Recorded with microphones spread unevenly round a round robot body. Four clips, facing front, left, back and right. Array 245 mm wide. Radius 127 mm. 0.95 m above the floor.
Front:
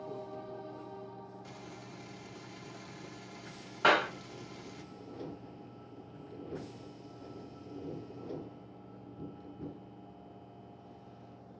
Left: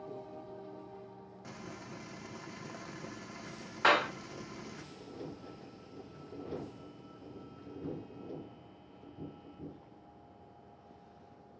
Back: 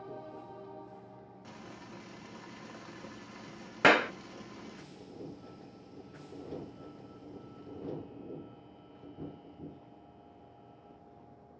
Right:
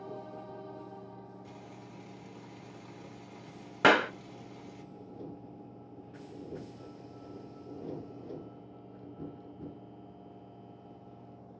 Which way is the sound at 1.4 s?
100° left.